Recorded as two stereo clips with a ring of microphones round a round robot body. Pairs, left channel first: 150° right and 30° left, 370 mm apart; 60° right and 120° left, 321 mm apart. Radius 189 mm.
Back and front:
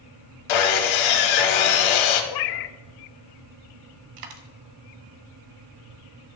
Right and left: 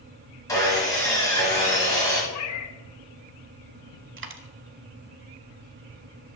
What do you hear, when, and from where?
0.5 s sawing: 140° right, 1.5 m
2.3 s a cat meowing: 110° right, 0.5 m
4.2 s a dropped coin: 65° left, 1.1 m